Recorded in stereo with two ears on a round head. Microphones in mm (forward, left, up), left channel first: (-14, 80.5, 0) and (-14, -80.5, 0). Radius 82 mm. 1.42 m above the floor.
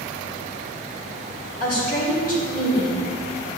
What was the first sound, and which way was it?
A woman speaking, 50° left (ahead or behind).